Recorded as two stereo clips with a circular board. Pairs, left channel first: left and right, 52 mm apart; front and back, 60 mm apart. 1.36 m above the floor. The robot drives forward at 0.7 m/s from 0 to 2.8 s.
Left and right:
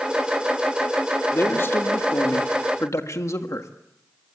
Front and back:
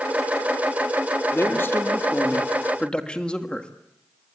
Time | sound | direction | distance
1.3 | a man speaking | 45° left | 2 m